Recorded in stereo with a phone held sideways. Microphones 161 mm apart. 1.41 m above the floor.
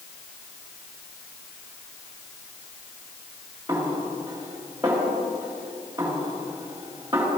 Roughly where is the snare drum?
Centre.